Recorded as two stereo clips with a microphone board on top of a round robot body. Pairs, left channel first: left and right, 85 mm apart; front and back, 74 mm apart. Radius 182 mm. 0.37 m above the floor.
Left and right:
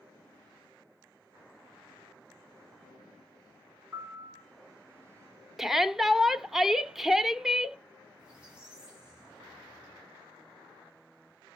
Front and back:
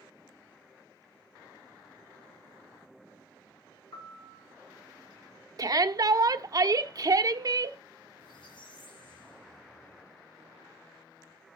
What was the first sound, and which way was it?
A piano, 25° right.